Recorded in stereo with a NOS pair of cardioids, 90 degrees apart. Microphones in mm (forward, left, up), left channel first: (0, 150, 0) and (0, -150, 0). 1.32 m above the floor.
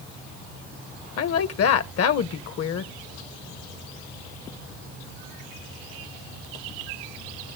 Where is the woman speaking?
55° left, 1.0 m.